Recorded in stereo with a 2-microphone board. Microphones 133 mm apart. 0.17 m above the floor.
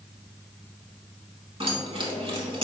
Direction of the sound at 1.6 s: 40° right (ahead or behind).